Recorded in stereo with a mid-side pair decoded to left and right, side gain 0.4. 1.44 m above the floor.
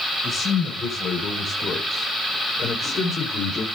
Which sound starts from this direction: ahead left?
A man speaking, at 0.2 s.